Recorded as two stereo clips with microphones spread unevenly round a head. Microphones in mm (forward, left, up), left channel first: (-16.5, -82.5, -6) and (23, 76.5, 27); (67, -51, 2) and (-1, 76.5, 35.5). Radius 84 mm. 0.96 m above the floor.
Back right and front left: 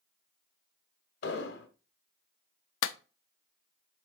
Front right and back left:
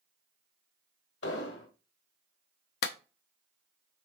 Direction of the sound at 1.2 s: 80° right.